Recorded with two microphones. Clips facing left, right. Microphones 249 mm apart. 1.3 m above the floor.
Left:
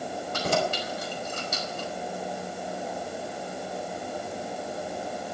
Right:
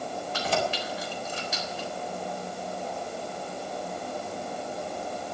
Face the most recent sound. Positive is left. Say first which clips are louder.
# left 2 dB
turn(degrees=50)  # may be behind; listen again after turning